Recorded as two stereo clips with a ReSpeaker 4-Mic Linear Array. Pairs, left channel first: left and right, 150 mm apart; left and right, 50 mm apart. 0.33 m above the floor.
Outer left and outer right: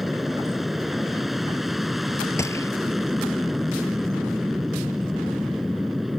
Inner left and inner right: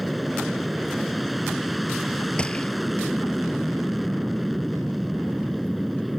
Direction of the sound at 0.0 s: Centre (ahead or behind).